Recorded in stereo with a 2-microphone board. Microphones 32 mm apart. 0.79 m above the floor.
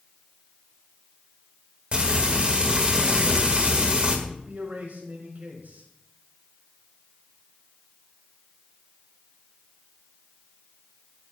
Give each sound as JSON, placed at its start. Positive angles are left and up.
{"t": 1.9, "sound": "frying", "side_deg": -35, "distance_m": 1.9}
{"t": 4.3, "sound": "a man speaking", "side_deg": -60, "distance_m": 3.5}